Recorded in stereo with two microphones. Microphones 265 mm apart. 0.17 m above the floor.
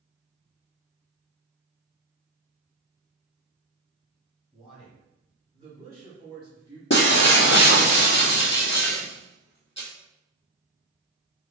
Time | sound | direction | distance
4.5 | a man speaking | 5° left (ahead or behind) | 1.7 m
6.9 | breaking glass | 45° left (ahead or behind) | 0.9 m